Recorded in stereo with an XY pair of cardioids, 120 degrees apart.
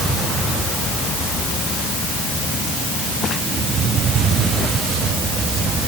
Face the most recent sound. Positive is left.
No sound to turn to.